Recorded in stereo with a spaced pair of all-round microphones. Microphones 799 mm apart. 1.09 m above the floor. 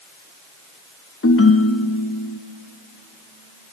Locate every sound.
1.2 s a ringtone: 20° left (ahead or behind), 0.7 m